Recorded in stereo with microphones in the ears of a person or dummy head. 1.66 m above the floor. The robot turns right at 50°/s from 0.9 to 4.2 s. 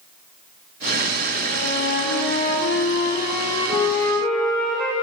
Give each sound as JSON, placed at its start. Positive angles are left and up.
{"t": 1.5, "sound": "a flute", "azimuth_deg": 40, "distance_m": 5.5}